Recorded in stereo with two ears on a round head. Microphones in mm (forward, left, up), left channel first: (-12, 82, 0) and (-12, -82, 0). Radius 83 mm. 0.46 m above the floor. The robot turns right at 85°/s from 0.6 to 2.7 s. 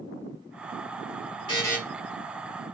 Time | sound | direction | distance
1.5 | a buzzer | 30° left (ahead or behind) | 1.1 m